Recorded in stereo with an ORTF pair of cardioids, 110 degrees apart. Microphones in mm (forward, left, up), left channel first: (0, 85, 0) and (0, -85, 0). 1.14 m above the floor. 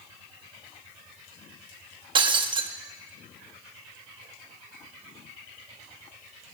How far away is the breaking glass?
About 1.0 m.